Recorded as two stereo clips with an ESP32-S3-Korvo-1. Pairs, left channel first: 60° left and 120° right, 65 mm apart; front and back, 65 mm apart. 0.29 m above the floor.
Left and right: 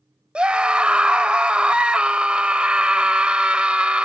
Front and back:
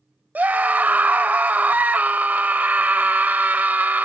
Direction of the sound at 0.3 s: 170° right.